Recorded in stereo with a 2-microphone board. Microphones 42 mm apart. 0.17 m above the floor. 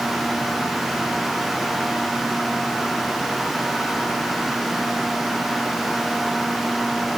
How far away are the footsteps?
I don't hear footsteps.